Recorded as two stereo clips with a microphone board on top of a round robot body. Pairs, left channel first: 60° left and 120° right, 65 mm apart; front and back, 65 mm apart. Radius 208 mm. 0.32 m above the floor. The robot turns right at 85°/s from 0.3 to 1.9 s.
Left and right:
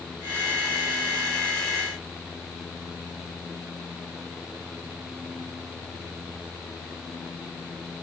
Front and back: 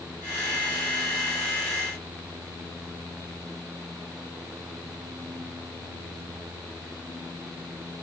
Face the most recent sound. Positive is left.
No sound to turn to.